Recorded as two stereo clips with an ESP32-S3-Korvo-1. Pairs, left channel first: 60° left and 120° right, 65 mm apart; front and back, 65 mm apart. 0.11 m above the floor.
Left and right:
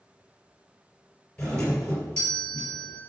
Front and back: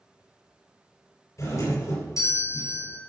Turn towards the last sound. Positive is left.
turn(degrees=-5)